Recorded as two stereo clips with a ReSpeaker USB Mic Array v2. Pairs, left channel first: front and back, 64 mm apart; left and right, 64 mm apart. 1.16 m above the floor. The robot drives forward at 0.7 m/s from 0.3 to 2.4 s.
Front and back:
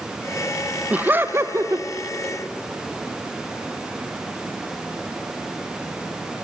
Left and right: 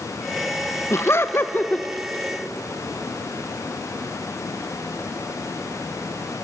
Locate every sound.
0.9 s laughter: 115° left, 0.8 m; by 1.9 s 150° left, 1.2 m